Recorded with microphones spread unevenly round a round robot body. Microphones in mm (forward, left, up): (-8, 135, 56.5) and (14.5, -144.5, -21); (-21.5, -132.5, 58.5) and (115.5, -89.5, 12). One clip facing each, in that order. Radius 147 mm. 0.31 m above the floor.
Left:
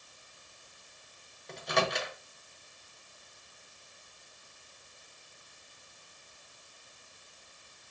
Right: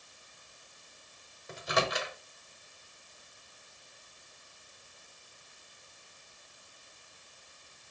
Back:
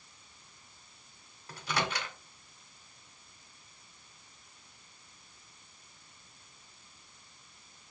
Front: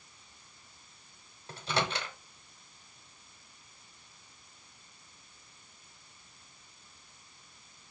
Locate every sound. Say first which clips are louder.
1.5 s a microwave: left 1 dB, front 1 dB; 15° right, 1.2 m